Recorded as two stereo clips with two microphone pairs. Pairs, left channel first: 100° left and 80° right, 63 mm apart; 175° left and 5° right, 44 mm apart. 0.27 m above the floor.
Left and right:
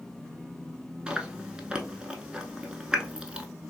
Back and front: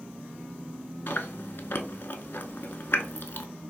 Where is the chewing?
150° right, 0.5 m.